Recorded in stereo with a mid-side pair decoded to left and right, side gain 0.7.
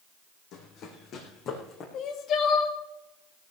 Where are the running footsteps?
55° left, 4.5 m; by 1.8 s 40° left, 5 m.